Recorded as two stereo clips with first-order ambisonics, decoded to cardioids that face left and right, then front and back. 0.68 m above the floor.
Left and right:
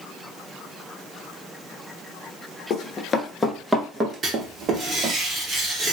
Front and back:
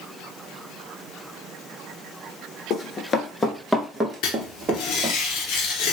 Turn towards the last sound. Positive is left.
turn(degrees=-25)